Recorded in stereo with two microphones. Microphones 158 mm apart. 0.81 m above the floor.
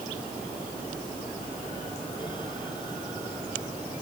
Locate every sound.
Only background noise.